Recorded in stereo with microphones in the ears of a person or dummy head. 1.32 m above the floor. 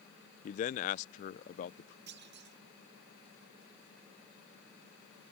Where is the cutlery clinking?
I don't hear cutlery clinking.